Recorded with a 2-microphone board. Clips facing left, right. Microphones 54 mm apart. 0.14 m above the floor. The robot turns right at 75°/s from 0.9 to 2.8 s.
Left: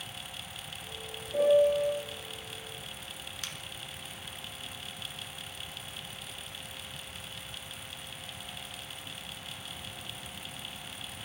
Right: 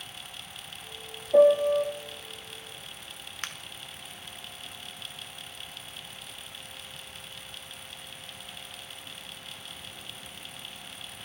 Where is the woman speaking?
I don't hear a woman speaking.